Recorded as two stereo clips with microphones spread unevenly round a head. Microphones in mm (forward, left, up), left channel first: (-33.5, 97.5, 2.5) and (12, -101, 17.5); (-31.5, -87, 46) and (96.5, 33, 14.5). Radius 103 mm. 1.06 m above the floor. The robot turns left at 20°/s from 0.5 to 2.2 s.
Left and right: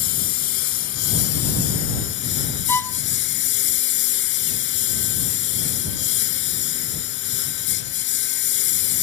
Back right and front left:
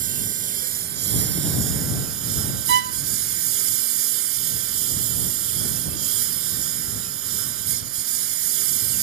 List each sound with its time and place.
0.0 s a lawn mower: 100° left; by 9.0 s 65° left
2.7 s a violin: 25° left